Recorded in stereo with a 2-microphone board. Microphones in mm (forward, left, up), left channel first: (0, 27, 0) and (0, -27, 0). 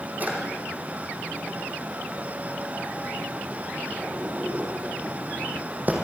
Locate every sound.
0.2 s a drawer: 30° right (ahead or behind), 3.5 m